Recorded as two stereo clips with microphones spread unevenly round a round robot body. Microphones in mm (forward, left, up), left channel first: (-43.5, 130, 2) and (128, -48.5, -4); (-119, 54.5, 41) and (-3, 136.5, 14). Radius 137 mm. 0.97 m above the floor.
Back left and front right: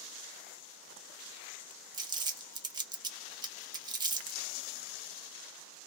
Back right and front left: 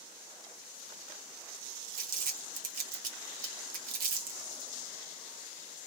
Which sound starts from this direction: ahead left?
Crumpling, at 1.9 s.